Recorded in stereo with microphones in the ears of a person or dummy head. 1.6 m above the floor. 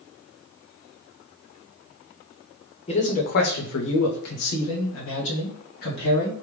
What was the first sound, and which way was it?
A man speaking, 30° left (ahead or behind).